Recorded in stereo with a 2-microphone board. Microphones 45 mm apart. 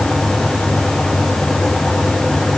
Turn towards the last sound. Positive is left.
No sound to turn to.